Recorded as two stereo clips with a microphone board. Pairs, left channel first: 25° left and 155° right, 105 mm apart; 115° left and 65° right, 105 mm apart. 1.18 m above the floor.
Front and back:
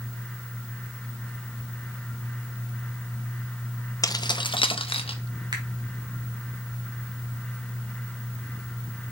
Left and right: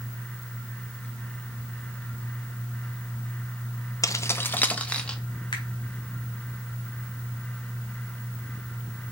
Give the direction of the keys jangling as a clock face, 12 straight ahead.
10 o'clock.